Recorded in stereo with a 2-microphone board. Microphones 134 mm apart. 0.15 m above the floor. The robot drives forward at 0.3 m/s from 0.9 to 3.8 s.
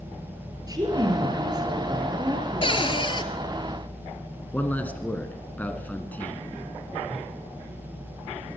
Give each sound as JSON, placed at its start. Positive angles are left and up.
{"t": 0.7, "sound": "a woman speaking", "side_deg": -30, "distance_m": 3.0}
{"t": 2.6, "sound": "a cupboard door", "side_deg": 45, "distance_m": 0.9}
{"t": 4.5, "sound": "a man speaking", "side_deg": 15, "distance_m": 1.7}